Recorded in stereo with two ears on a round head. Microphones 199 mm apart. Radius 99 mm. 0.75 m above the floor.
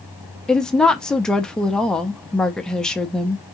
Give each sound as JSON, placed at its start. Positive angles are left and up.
{"t": 0.5, "sound": "a woman speaking", "side_deg": 5, "distance_m": 0.7}